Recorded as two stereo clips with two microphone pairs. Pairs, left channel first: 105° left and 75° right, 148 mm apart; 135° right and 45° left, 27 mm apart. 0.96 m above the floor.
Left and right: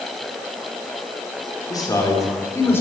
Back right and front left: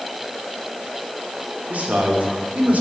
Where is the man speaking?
45° left, 3 m; by 2.8 s 30° left, 3.5 m.